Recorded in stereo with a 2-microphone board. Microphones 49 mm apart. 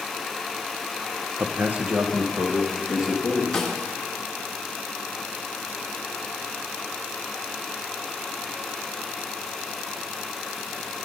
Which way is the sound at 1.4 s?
45° right (ahead or behind).